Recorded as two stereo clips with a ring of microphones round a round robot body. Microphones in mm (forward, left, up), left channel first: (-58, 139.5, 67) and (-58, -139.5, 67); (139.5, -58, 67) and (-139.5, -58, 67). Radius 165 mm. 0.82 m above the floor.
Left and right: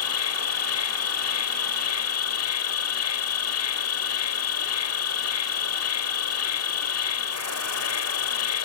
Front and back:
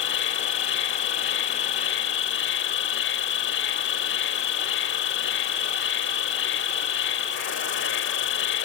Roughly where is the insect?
Ahead left.